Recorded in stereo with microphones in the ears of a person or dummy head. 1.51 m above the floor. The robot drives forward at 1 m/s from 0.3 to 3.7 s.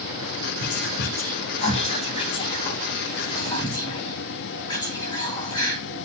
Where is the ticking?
No ticking in this recording.